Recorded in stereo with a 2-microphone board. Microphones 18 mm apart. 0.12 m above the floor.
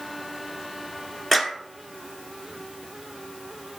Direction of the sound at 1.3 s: 10° left (ahead or behind).